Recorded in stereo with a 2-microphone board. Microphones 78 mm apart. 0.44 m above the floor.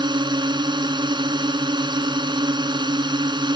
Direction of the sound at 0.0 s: 75° right (ahead or behind).